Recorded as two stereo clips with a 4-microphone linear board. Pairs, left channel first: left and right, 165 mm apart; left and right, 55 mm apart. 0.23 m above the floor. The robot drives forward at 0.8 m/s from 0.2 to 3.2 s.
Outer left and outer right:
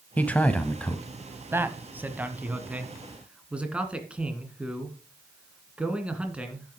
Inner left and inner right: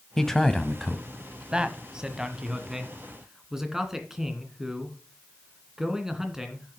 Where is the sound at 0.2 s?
10° left (ahead or behind), 1.1 m; by 1.0 s 5° left (ahead or behind), 1.4 m.